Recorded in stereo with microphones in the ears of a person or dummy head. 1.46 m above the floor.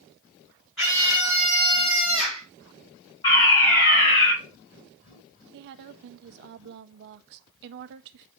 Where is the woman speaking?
60° right (ahead or behind), 0.7 m.